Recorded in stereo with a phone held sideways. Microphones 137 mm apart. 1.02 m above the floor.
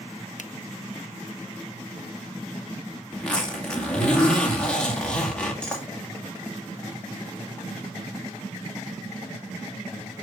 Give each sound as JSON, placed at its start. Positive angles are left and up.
{"t": 0.4, "sound": "a finger snap", "side_deg": 70, "distance_m": 0.6}
{"t": 3.1, "sound": "a zipper", "side_deg": 10, "distance_m": 2.5}